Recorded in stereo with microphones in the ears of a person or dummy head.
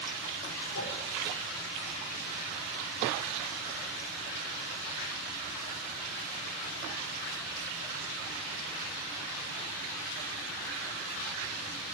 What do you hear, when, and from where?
0.7 s a whoosh: 75° left (ahead or behind), 5 m